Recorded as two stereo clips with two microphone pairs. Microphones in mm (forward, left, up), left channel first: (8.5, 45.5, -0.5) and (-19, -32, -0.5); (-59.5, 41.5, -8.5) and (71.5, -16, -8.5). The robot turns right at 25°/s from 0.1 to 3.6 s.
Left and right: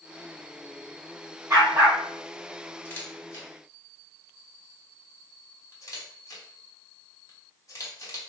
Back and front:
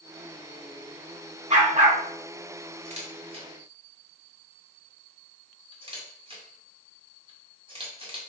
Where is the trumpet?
No trumpet in this recording.